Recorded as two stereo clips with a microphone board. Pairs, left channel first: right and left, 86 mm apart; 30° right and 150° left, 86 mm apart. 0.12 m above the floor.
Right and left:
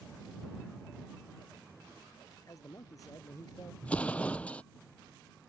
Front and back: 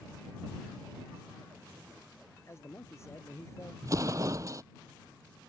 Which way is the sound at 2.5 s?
70° right.